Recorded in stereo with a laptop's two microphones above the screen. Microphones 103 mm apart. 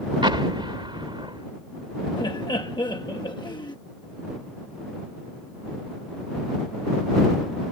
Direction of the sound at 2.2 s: 45° left (ahead or behind).